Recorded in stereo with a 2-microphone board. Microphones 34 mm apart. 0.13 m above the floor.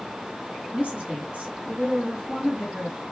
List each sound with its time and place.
0.7 s a woman speaking: 35° right (ahead or behind), 1.3 m